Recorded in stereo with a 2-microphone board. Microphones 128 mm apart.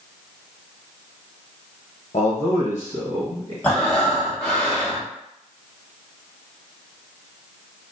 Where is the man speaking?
60° left (ahead or behind), 0.9 m.